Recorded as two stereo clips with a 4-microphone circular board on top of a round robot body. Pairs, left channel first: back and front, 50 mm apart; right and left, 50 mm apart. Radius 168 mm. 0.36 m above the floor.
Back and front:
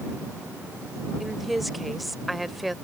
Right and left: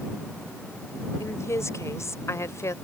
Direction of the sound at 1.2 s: 90° right.